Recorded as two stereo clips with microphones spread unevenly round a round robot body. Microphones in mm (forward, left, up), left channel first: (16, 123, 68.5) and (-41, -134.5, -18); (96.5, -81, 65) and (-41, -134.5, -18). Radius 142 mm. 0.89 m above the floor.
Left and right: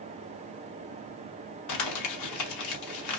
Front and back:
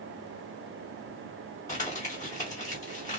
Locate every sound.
1.7 s crumpling: 95° left, 1.7 m